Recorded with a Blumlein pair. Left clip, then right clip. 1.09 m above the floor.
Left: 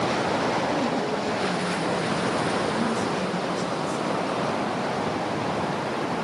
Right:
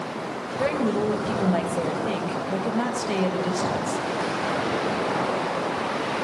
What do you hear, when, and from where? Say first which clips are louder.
0.6 s a woman speaking: right 1 dB; 45° right, 6.5 m